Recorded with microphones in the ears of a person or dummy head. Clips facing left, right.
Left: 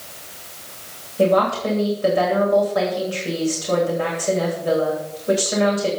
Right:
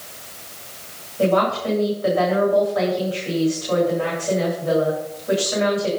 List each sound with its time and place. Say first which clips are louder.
1.2 s a woman speaking: left 2 dB; 35° left (ahead or behind), 10 m